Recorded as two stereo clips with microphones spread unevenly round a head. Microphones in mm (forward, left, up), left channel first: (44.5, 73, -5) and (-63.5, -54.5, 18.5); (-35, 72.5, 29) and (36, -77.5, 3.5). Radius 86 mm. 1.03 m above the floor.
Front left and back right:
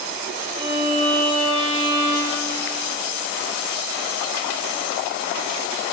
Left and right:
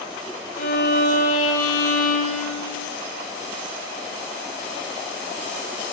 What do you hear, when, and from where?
0.6 s a violin: 160° left, 0.8 m